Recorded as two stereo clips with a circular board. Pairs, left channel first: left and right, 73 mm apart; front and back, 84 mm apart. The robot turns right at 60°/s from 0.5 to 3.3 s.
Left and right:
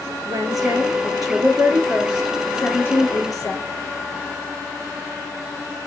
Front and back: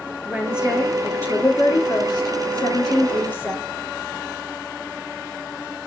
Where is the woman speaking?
105° right, 4 m; by 3.6 s 65° left, 4 m.